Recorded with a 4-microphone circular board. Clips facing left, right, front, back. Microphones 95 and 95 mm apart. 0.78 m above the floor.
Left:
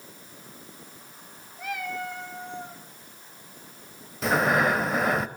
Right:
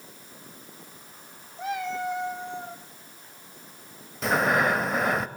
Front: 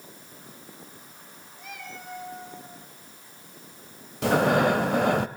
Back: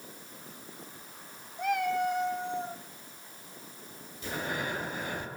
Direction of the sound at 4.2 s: Straight ahead.